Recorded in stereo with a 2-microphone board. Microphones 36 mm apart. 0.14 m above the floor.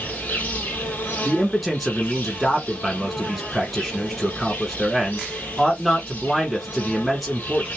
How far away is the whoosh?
No whoosh in this recording.